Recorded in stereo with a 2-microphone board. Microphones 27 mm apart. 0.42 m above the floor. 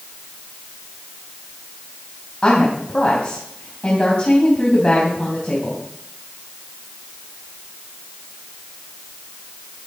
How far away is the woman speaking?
About 3.5 m.